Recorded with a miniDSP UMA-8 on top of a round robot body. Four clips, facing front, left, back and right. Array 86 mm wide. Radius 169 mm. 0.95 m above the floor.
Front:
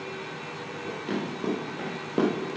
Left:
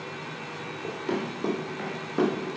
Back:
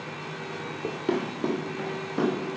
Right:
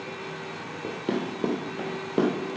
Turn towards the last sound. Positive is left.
turn(degrees=-50)